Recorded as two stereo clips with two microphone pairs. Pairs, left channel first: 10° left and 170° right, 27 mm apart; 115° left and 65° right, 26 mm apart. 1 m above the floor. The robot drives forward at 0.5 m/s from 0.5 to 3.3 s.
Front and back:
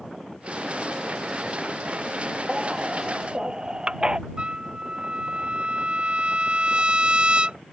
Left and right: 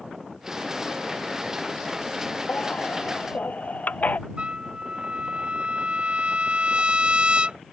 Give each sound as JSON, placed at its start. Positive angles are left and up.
{"t": 2.5, "sound": "a baby crying", "azimuth_deg": 125}
{"t": 4.4, "sound": "a trumpet", "azimuth_deg": -120}